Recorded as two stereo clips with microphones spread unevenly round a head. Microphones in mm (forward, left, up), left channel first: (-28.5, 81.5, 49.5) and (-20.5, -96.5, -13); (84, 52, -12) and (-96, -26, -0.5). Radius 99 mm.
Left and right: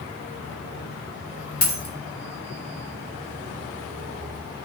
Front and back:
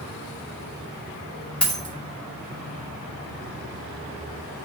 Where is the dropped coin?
110° left, 2 m.